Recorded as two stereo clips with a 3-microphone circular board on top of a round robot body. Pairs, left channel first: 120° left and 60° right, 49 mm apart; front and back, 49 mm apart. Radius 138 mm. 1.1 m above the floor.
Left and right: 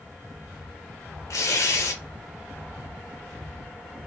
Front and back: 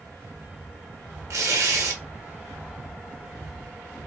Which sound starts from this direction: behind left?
Tearing paper, at 1.3 s.